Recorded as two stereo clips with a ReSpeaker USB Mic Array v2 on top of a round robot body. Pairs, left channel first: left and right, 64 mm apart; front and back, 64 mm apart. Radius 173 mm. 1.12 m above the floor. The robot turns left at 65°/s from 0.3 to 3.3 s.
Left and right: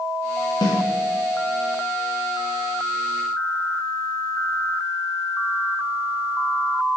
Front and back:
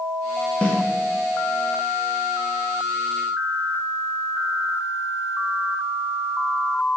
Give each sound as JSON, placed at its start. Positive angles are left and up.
{"t": 0.6, "sound": "a snare drum", "azimuth_deg": 75, "distance_m": 0.5}